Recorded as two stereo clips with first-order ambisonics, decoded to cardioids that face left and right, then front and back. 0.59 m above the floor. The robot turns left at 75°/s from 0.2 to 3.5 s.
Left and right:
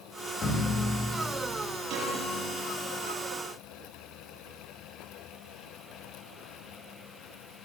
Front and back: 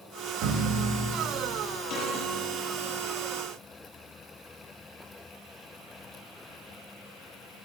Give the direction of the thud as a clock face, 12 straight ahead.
7 o'clock.